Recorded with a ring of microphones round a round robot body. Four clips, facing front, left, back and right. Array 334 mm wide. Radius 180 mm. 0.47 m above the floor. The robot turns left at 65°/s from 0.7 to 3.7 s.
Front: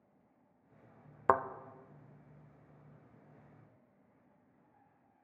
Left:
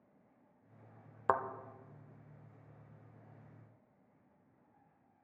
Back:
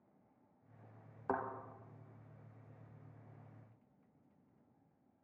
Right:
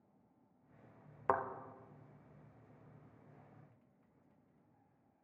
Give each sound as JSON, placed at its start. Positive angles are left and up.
{"t": 1.3, "sound": "a thud", "azimuth_deg": 10, "distance_m": 0.6}